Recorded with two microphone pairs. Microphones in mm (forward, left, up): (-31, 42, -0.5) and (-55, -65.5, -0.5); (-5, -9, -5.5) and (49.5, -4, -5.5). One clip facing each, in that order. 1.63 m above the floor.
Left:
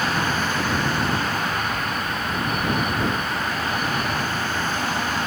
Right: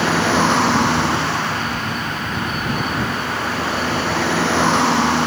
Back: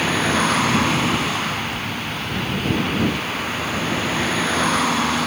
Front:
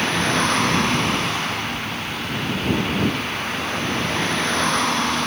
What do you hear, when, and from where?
0.0 s a vehicle: 90° right